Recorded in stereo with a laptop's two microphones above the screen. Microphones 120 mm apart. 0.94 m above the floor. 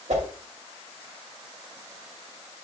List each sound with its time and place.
0.1 s a whoosh: 75° right (ahead or behind), 2.5 m